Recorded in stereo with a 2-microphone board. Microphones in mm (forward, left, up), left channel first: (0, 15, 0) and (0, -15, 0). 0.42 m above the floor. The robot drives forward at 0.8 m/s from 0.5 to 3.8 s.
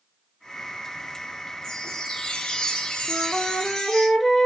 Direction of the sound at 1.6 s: 20° left (ahead or behind).